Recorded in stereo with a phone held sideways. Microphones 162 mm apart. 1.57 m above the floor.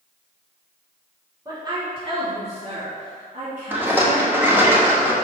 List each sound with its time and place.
1.4 s a woman speaking: 25° right (ahead or behind), 2 m; by 4.7 s 65° right (ahead or behind), 3.5 m
3.7 s a rattle: 15° right (ahead or behind), 1.2 m